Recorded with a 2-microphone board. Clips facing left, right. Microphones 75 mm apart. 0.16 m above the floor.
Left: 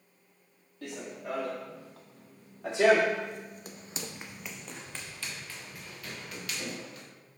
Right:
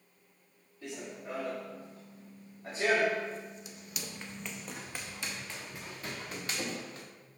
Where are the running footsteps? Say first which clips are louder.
Left 3 dB; 70° left (ahead or behind), 1.6 m; by 7.1 s 35° right (ahead or behind), 1.7 m.